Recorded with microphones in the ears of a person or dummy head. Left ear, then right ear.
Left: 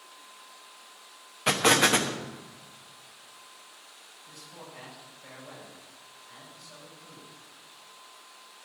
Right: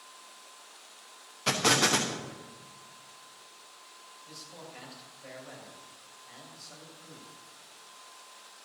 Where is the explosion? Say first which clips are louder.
Left 3 dB; 15° left (ahead or behind), 1.1 m.